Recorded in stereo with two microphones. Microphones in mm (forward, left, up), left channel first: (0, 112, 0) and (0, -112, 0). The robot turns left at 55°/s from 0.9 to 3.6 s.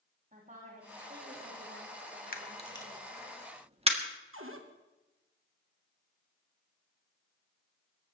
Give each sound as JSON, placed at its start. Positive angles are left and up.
{"t": 0.3, "sound": "a woman speaking", "azimuth_deg": -35, "distance_m": 7.5}
{"t": 2.3, "sound": "a camera shutter", "side_deg": 40, "distance_m": 1.8}
{"t": 4.3, "sound": "a cupboard door", "side_deg": -70, "distance_m": 1.8}